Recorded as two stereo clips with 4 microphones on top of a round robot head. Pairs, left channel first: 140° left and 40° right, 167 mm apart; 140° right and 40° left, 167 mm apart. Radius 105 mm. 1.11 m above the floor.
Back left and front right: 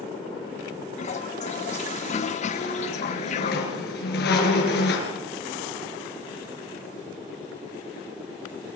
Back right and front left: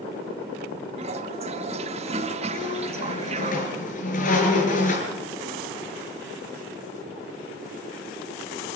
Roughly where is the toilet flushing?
Left.